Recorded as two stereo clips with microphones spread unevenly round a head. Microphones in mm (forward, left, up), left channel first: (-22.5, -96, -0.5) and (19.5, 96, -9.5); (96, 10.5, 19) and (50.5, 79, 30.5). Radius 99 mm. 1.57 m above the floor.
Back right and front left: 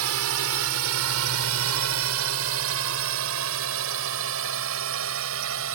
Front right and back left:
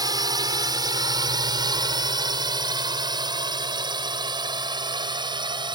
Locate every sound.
0.0 s a drone: 90° left; by 5.8 s 100° left